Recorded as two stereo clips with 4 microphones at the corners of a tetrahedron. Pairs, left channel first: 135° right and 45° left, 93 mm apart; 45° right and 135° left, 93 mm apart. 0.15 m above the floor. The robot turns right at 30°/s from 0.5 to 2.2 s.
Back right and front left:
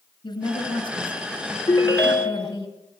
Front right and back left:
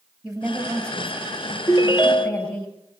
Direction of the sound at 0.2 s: 140° right.